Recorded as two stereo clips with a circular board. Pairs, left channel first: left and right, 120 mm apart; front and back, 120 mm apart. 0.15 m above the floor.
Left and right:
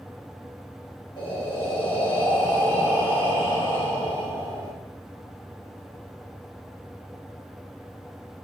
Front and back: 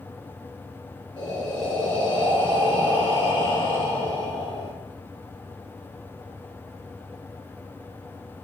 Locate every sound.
1.2 s breathing: 45° left, 3 m